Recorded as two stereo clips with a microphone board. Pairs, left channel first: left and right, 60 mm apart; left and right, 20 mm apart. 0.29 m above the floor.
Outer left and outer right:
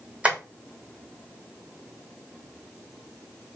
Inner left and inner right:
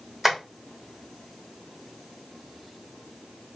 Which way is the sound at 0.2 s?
20° right (ahead or behind).